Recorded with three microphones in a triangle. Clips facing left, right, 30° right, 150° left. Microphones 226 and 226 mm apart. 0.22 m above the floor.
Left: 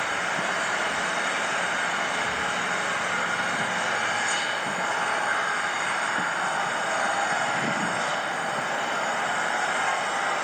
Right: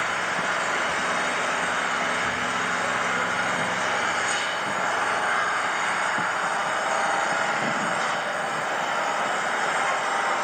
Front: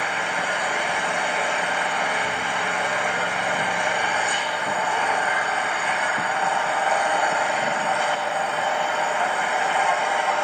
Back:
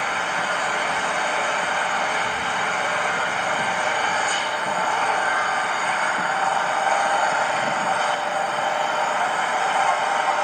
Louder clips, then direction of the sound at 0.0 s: Right 1 dB, even; 110° right.